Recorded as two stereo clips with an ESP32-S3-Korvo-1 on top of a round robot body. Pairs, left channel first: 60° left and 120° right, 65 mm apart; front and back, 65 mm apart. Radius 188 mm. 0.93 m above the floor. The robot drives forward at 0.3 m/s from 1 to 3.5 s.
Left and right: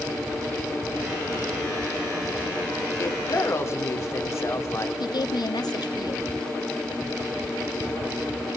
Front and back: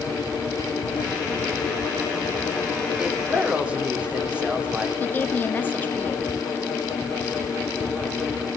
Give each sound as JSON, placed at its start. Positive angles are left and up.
{"t": 3.0, "sound": "a woman speaking", "azimuth_deg": 105, "distance_m": 3.0}
{"t": 5.0, "sound": "a woman speaking", "azimuth_deg": 65, "distance_m": 2.5}